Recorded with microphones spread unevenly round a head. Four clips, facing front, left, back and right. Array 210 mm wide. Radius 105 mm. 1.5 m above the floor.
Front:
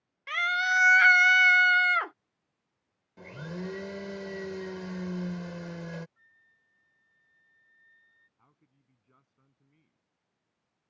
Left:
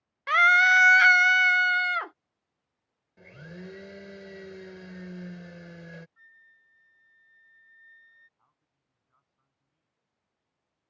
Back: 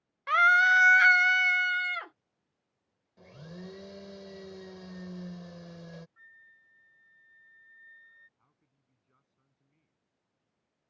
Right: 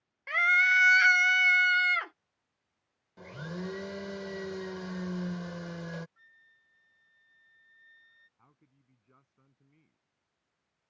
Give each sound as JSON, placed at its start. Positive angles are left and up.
{"t": 0.3, "sound": "a scream", "azimuth_deg": 75}
{"t": 3.2, "sound": "a blender", "azimuth_deg": -20}
{"t": 6.2, "sound": "a flute", "azimuth_deg": 170}
{"t": 8.4, "sound": "a man speaking", "azimuth_deg": -50}